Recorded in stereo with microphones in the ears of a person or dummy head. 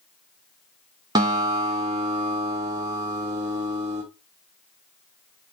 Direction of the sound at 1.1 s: 20° right (ahead or behind).